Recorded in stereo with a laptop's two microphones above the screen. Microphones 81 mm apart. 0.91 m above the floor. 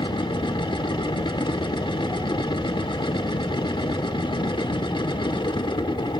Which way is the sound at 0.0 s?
80° left.